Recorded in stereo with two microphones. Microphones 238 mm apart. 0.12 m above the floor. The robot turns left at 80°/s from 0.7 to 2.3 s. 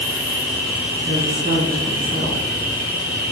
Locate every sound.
0.0 s an insect: 175° left, 1.6 m; by 3.3 s 50° left, 1.6 m
1.1 s a woman speaking: 50° right, 2.0 m; by 2.4 s 150° right, 2.0 m